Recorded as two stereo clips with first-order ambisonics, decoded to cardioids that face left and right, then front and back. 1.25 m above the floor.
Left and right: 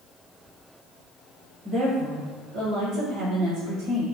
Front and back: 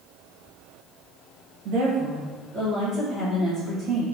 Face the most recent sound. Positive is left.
turn(degrees=-75)